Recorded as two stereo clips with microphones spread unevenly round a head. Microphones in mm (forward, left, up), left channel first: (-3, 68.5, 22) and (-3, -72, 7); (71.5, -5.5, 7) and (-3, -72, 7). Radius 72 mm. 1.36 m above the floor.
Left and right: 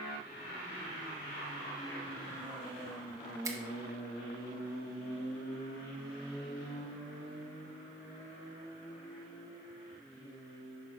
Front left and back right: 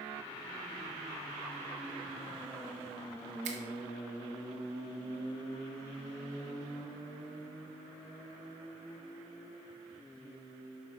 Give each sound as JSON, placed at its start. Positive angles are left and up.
{"t": 3.5, "sound": "a finger snap", "azimuth_deg": -160, "distance_m": 1.0}